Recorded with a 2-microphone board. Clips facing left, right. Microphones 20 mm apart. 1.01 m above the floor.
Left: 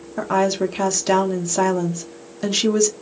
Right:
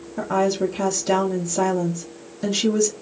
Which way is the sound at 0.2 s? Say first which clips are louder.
Left 2 dB; 35° left (ahead or behind).